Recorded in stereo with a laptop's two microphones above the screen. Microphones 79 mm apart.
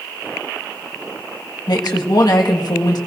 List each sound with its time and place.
1.7 s a woman speaking: 60° left (ahead or behind), 1.5 m